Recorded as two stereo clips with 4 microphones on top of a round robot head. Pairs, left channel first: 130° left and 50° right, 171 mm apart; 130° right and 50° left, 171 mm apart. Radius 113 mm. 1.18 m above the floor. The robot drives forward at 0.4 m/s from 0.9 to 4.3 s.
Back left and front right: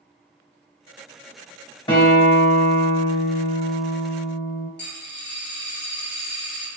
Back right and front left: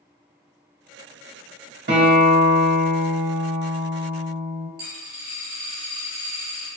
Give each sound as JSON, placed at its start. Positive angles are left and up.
{"t": 1.9, "sound": "a guitar", "azimuth_deg": 70, "distance_m": 1.4}
{"t": 4.8, "sound": "a dropped coin", "azimuth_deg": 105, "distance_m": 1.4}